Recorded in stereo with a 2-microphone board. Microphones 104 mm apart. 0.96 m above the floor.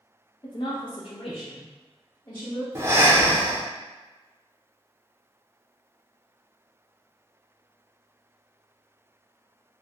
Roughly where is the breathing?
Right.